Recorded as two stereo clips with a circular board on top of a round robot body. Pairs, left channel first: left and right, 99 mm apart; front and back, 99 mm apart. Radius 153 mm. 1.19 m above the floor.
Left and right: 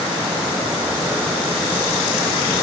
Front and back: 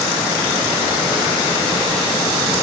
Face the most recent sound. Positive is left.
No sound to turn to.